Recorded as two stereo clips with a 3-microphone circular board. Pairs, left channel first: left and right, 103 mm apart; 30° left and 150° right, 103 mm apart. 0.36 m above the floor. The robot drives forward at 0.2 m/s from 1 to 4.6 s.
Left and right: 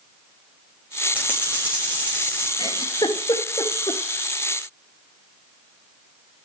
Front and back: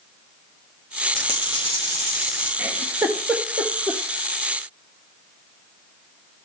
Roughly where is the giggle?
Behind left.